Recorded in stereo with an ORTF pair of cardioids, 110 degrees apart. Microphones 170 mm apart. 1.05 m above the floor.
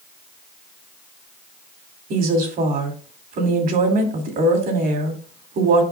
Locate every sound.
2.1 s a woman speaking: 60° right, 2.5 m